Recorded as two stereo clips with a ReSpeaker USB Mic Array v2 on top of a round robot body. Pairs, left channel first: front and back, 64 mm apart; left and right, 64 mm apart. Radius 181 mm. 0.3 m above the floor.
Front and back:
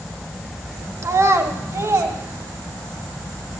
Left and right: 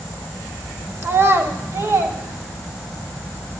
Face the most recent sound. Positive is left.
turn(degrees=-135)